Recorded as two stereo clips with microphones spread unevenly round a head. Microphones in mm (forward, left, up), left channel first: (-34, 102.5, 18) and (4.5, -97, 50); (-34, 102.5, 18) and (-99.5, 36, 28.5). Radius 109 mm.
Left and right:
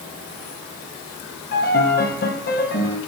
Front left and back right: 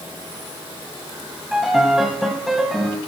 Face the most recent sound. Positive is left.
turn(degrees=145)